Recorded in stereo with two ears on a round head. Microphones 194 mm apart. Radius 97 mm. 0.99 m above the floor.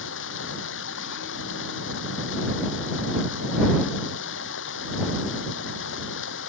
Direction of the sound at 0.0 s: 60° left (ahead or behind).